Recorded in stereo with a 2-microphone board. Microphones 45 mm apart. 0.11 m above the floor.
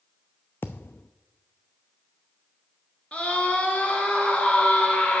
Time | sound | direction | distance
0.6 | a thud | 55° left (ahead or behind) | 0.6 m
3.1 | a scream | 25° left (ahead or behind) | 1.9 m